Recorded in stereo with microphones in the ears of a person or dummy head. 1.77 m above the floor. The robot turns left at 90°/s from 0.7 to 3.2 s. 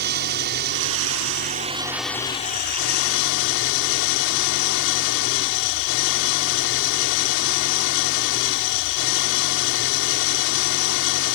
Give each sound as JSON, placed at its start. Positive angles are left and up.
{"t": 0.0, "sound": "an engine running", "azimuth_deg": -60}